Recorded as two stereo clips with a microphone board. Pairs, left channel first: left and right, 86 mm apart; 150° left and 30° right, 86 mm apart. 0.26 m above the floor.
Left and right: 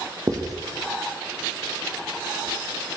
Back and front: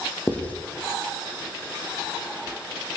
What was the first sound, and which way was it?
Writing, 140° right.